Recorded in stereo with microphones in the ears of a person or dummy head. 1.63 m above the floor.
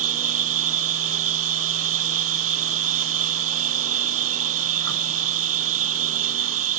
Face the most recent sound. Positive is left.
turn(degrees=-80)